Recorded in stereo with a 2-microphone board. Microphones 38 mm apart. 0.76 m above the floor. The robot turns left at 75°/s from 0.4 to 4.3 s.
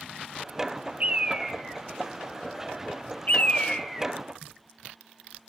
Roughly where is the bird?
Right.